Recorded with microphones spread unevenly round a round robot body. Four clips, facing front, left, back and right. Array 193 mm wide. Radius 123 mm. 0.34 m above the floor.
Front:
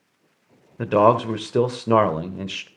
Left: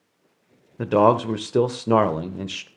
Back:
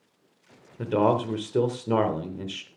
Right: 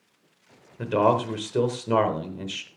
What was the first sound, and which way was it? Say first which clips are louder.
A man speaking: left 4 dB, front 6 dB; 40° left.